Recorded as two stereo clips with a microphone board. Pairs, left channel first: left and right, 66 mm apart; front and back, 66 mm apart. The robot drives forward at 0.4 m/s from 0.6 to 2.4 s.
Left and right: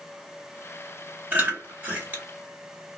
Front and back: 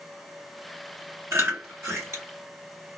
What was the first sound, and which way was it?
Chewing, 145° right.